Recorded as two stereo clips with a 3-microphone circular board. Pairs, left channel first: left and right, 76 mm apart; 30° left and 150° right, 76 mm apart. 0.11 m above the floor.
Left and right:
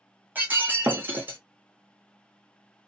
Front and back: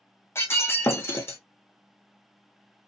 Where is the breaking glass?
25° right, 0.7 m.